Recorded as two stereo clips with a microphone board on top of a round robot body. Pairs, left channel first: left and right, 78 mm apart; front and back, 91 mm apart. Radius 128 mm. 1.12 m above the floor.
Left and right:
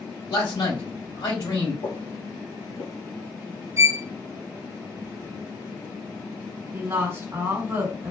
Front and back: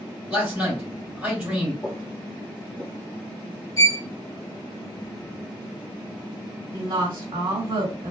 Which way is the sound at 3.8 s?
40° right.